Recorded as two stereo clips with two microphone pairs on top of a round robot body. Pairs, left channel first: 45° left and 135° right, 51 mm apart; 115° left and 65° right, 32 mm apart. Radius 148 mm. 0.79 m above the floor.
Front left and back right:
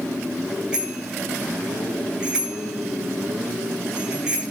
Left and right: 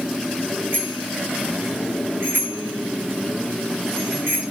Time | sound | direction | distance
0.7 | a bicycle bell | 60° right | 9.5 m